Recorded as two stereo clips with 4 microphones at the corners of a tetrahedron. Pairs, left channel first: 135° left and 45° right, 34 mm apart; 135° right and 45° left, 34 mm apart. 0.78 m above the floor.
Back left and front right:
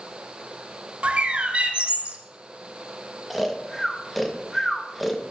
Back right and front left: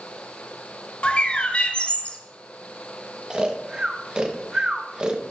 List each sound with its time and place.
1.0 s a bird: 90° right, 0.8 m
3.3 s snoring: 50° left, 0.8 m